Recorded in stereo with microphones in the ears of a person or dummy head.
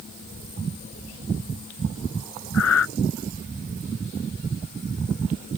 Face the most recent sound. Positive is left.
turn(degrees=80)